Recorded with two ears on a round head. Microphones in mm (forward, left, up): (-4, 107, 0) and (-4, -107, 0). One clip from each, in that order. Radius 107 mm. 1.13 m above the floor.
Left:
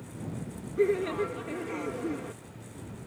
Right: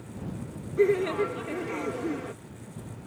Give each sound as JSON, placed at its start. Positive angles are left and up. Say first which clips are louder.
{"t": 0.8, "sound": "laughter", "louder": "right 3 dB", "side_deg": -10}